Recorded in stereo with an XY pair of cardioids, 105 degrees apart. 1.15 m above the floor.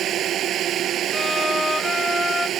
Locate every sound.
0.0 s a drone: 65° right
1.1 s a violin: 15° left